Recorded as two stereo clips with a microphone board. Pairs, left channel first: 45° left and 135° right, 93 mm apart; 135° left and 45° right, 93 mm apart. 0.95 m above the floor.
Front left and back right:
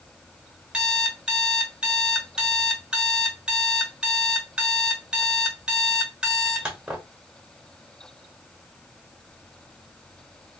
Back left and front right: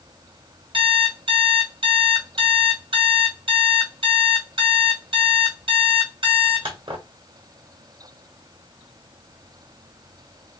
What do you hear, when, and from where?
0.7 s an alarm clock: 55° right, 1.2 m